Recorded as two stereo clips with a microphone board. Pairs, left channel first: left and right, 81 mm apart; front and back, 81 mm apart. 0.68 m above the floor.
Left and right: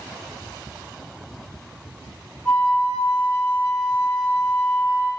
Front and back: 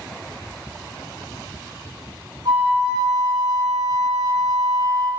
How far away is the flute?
About 2 m.